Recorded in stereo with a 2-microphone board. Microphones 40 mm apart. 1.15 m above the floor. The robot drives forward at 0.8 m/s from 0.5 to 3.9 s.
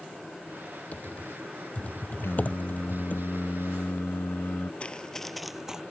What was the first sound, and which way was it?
Typing on a keyboard, 40° left (ahead or behind).